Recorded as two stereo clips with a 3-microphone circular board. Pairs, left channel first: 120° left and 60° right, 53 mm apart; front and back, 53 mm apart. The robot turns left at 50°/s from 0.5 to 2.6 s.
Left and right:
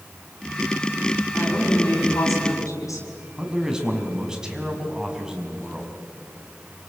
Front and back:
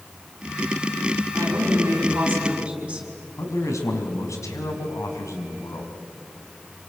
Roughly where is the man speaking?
Ahead.